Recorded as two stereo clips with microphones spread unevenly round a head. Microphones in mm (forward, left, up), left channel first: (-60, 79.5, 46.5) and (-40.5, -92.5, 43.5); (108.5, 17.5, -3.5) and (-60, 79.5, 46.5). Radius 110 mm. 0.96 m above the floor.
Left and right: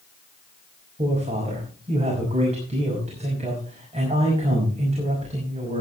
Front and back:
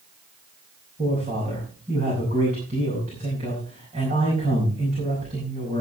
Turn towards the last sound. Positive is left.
turn(degrees=-135)